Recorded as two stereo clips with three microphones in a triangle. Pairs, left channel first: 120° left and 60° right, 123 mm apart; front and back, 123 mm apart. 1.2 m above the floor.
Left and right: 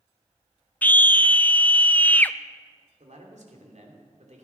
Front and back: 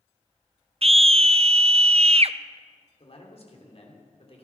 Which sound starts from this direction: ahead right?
A man speaking, at 3.0 s.